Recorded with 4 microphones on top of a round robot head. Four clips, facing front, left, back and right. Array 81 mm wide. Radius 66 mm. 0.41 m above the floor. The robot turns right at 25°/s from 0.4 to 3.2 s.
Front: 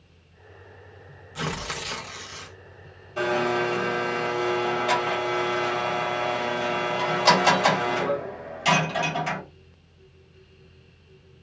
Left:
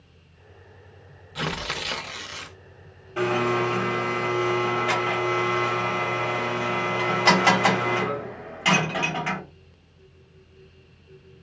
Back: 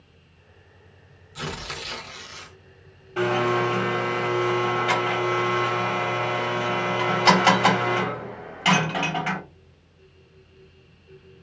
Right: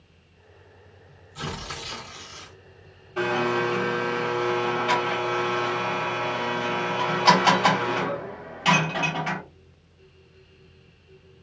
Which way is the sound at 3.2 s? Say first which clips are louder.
Left 1 dB, back 2 dB; 160° left.